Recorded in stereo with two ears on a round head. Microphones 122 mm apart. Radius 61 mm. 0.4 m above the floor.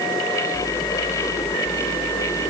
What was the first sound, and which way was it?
Only background noise.